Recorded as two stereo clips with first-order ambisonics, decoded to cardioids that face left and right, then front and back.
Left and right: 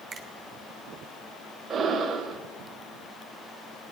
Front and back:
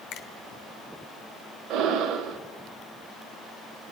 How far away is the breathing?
About 1.0 m.